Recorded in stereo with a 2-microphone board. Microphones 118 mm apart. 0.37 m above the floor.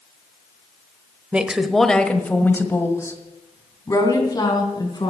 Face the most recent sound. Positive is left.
turn(degrees=35)  # may be behind; listen again after turning